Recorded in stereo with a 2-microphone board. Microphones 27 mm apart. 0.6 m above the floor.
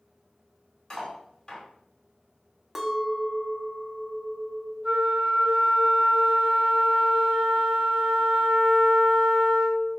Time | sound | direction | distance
0.9 | cutlery clinking | 25° left (ahead or behind) | 1.7 m
2.8 | a clink | 10° right (ahead or behind) | 0.5 m
4.8 | a flute | 50° right (ahead or behind) | 1.2 m